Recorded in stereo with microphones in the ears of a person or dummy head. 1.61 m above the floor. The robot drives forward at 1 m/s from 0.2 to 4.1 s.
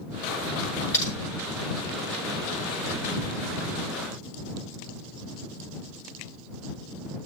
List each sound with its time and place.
0.9 s typing on a keyboard: 20° left (ahead or behind), 4.5 m